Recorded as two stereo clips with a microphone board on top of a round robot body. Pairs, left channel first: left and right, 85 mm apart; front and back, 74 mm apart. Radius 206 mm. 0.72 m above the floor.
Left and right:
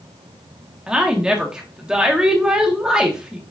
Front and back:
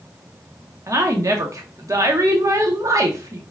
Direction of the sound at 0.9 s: 165° right.